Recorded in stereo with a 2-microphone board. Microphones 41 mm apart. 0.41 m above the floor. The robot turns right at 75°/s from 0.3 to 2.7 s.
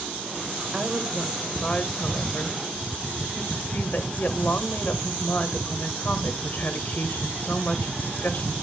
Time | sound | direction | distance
0.7 | a woman speaking | 35° right | 1.4 m